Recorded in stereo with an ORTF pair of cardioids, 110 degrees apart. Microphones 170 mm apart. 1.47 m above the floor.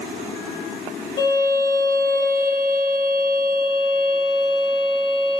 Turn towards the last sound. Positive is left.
turn(degrees=65)